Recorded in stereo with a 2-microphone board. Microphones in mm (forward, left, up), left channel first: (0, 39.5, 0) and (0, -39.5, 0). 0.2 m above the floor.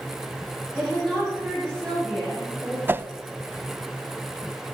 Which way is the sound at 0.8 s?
10° left (ahead or behind).